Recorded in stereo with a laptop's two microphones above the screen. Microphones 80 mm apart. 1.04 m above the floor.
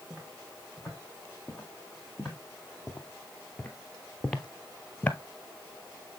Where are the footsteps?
5° right (ahead or behind), 2.5 m; by 5.2 s 15° left (ahead or behind), 1.0 m.